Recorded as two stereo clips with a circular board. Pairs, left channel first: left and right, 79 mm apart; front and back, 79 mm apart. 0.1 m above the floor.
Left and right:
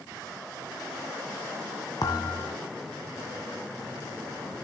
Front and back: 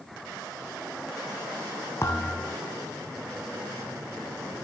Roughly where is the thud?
Ahead left.